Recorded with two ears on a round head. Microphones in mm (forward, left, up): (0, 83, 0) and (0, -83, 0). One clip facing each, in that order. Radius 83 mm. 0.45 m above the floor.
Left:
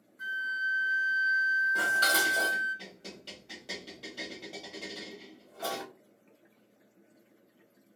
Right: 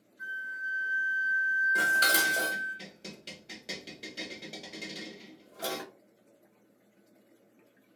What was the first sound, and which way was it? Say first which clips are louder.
A flute: left 4 dB; 45° left (ahead or behind).